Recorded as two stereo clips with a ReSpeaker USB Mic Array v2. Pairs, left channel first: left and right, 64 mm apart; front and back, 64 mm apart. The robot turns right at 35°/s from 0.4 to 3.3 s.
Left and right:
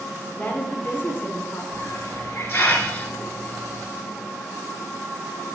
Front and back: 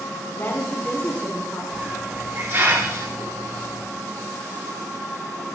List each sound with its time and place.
0.4 s a woman speaking: 40° left, 1.3 m; by 1.6 s 80° left, 1.3 m
1.7 s a hiss: 110° left, 1.3 m; by 3.9 s 165° left, 1.3 m